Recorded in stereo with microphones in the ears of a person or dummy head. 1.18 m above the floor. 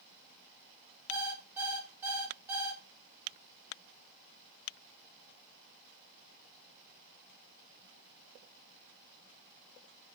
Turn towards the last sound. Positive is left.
turn(degrees=-10)  # may be behind; listen again after turning